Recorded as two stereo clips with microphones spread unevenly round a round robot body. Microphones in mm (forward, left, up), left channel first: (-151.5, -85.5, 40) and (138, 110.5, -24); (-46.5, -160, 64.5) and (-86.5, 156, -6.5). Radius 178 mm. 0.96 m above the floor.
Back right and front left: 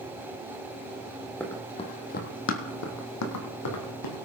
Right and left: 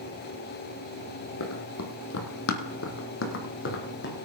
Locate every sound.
1.4 s running footsteps: 70° right, 1.4 m; by 4.1 s 130° right, 2.5 m